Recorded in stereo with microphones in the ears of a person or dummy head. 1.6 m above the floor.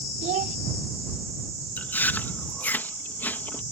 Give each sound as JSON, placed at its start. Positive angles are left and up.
{"t": 0.2, "sound": "a child speaking", "side_deg": -40}
{"t": 1.8, "sound": "chewing", "side_deg": 10}